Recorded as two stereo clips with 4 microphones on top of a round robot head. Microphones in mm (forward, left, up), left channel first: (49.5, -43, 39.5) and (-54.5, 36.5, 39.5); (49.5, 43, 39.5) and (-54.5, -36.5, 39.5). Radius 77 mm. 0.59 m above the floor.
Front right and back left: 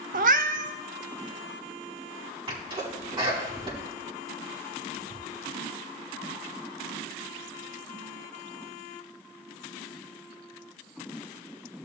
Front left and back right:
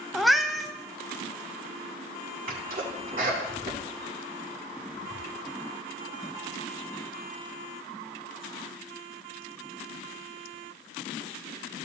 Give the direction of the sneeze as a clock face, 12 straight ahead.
5 o'clock.